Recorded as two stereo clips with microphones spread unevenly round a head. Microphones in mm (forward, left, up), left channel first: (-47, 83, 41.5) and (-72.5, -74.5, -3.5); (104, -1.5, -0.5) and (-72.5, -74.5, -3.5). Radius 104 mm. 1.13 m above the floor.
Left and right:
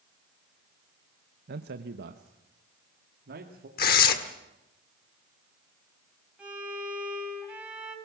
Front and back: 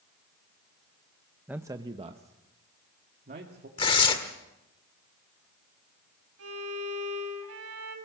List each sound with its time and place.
1.5 s a man speaking: 75° right, 0.7 m; by 3.7 s 115° right, 2.5 m
3.8 s tearing paper: 90° left, 1.6 m
6.4 s a violin: 175° left, 5 m